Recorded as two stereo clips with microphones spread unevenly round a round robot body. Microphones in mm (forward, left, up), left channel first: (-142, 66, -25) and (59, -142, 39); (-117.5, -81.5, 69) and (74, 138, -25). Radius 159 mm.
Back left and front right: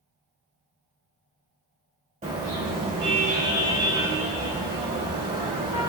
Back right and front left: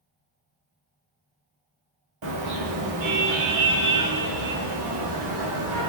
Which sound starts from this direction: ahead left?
A car horn, at 2.2 s.